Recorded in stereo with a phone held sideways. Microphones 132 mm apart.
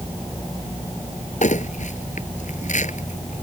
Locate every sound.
1.4 s crumpling: 75° left (ahead or behind)